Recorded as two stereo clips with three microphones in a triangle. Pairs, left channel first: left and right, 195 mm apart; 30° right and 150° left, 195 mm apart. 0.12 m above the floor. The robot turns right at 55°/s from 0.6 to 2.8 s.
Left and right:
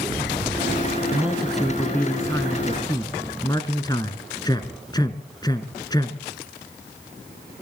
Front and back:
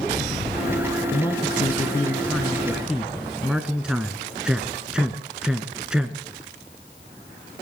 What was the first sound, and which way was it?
A man speaking, 20° right.